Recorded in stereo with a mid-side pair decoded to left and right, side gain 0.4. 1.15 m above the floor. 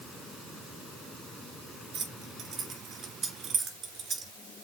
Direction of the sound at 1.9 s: 55° right.